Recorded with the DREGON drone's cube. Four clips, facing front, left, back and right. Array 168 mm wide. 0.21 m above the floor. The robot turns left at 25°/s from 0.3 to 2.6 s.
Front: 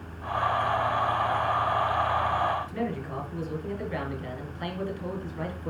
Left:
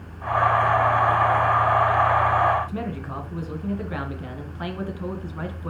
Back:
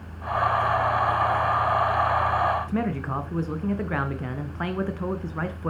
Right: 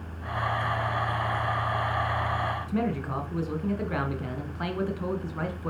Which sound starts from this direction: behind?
A man speaking, at 2.7 s.